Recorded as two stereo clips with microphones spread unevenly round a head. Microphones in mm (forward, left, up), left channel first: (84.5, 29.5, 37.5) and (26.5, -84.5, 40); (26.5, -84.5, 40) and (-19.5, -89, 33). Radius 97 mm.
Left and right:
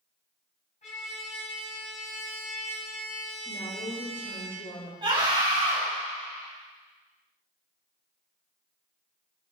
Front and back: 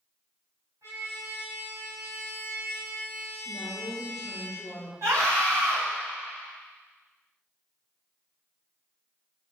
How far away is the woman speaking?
About 3 m.